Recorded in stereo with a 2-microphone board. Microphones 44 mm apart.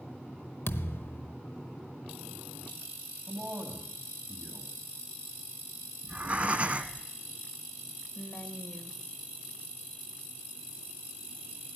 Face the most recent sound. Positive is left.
turn(degrees=40)  # may be behind; listen again after turning